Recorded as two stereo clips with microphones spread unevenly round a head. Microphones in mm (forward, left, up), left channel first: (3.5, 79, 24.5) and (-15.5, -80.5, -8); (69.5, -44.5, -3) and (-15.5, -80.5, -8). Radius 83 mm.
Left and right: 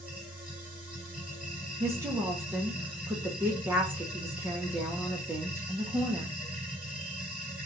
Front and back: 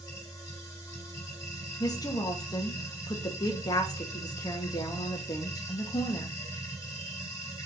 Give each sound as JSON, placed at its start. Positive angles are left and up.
{"t": 0.0, "sound": "a machine running", "azimuth_deg": -5, "distance_m": 1.4}
{"t": 1.8, "sound": "a woman speaking", "azimuth_deg": -25, "distance_m": 0.5}